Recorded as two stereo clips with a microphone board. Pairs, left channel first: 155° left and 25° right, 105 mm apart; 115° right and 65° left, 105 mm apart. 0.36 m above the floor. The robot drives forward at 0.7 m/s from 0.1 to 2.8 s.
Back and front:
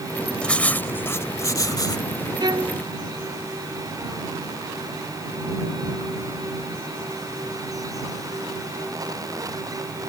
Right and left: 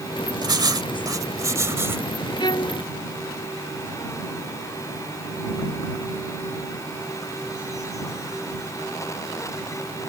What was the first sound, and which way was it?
Writing, 80° left.